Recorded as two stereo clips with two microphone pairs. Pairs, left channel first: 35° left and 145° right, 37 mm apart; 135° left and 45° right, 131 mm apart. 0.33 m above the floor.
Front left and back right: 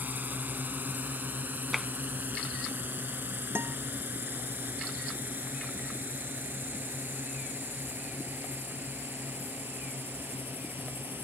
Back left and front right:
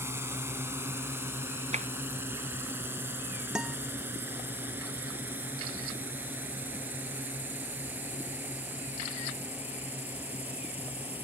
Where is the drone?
115° right; by 11.2 s 125° right.